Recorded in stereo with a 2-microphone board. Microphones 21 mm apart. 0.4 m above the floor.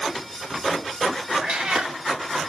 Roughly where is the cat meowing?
Right.